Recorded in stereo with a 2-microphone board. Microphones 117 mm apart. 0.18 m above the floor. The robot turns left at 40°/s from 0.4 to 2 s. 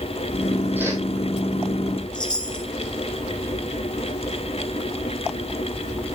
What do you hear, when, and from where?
0.8 s a whoosh: 15° right (ahead or behind), 3 m; by 1.0 s 25° right (ahead or behind), 3 m
2.1 s a chime: 40° left (ahead or behind), 1.7 m